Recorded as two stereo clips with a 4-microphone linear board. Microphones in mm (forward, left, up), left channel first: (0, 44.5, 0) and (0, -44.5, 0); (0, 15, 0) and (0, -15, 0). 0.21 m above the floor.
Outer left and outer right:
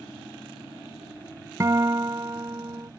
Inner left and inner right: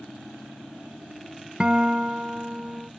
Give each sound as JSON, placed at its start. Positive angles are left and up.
{"t": 1.6, "sound": "a guitar", "side_deg": -35}